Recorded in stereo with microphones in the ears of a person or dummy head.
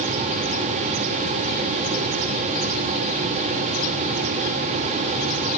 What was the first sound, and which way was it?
Only background noise.